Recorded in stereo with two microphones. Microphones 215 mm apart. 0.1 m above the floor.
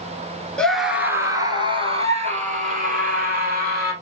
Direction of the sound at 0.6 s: 5° left (ahead or behind).